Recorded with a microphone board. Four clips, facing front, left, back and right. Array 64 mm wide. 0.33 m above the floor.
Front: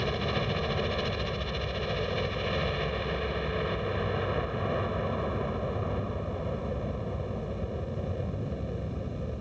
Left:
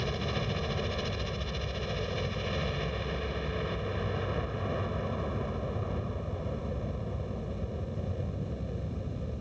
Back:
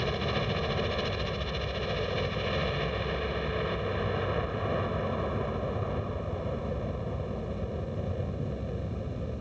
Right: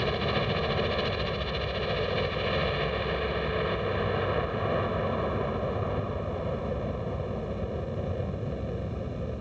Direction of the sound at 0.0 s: 90° right.